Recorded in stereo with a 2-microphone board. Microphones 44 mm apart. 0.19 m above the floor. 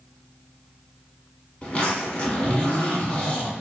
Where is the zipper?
30° left (ahead or behind), 1.3 m.